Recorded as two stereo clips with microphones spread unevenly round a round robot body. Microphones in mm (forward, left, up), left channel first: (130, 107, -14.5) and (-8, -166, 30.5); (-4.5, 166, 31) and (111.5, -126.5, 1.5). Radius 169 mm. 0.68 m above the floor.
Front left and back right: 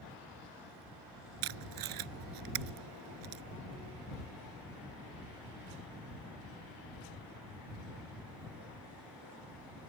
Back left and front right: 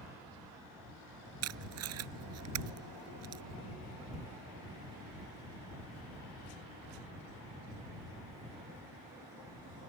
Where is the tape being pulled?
115° right.